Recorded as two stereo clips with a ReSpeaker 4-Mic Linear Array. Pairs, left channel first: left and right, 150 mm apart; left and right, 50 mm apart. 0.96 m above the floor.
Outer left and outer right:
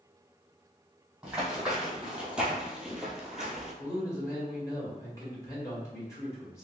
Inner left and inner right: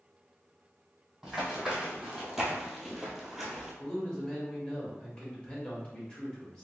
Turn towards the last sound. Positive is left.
turn(degrees=20)  # may be behind; listen again after turning